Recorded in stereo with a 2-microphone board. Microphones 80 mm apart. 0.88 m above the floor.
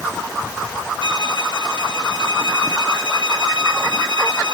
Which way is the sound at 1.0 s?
75° right (ahead or behind).